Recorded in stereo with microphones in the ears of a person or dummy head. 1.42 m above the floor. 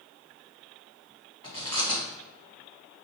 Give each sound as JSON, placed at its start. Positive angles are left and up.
{"t": 1.4, "sound": "chewing", "side_deg": 35, "distance_m": 1.5}